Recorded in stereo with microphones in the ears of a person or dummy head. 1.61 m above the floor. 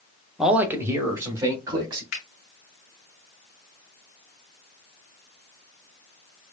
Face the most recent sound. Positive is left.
turn(degrees=60)  # may be behind; listen again after turning